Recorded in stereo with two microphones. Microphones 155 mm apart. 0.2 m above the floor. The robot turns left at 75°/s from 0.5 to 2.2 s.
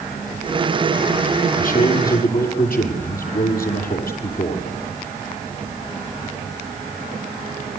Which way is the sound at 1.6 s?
120° left.